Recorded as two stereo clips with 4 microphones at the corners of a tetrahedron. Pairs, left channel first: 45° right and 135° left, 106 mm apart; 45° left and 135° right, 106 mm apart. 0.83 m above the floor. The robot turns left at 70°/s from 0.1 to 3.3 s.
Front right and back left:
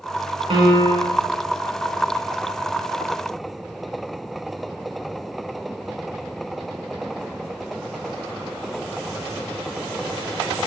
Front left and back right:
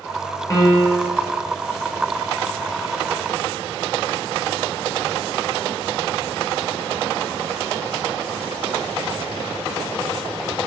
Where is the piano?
105° left, 0.5 m; by 1.2 s 55° left, 0.5 m.